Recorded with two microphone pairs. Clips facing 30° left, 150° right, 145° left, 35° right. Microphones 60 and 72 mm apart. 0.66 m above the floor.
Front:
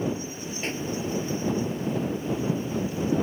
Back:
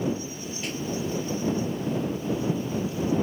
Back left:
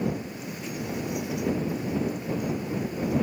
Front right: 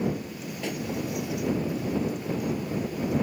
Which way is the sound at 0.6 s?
30° right.